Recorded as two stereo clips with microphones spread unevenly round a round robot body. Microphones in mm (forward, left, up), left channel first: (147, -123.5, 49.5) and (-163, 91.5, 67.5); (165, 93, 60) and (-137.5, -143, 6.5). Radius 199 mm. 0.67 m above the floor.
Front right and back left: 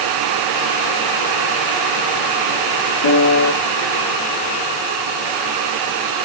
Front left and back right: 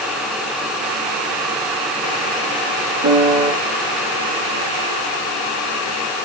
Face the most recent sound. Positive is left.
turn(degrees=-90)